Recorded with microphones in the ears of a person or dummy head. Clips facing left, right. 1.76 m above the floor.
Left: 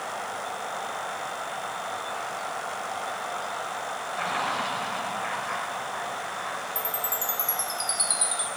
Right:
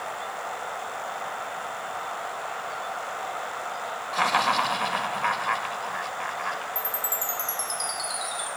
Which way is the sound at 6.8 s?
5° left (ahead or behind).